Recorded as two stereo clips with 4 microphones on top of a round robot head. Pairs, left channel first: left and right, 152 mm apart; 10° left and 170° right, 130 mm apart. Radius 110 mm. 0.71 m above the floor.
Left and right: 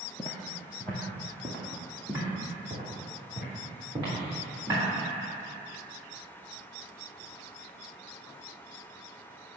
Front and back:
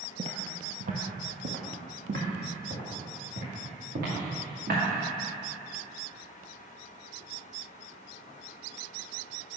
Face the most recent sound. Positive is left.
turn(degrees=-165)